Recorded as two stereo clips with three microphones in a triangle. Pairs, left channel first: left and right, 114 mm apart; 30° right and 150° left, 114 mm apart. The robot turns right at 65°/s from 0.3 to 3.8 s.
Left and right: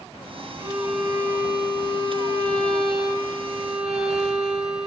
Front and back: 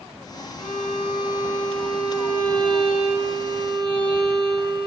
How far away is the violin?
About 1.2 m.